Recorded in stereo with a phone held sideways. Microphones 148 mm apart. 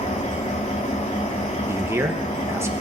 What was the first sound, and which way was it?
An engine running, 50° left (ahead or behind).